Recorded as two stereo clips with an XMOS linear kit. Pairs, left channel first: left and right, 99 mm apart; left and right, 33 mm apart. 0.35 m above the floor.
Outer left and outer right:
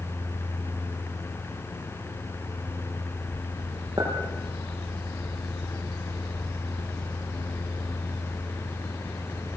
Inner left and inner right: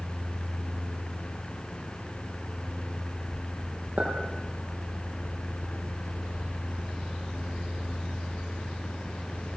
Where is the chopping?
No chopping in this recording.